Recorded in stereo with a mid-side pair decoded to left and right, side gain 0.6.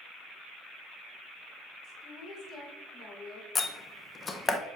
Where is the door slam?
25° left, 0.7 m.